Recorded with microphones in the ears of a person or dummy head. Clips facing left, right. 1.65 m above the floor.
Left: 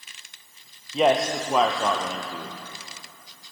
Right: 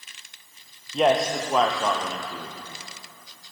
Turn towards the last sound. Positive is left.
turn(degrees=5)  # may be behind; listen again after turning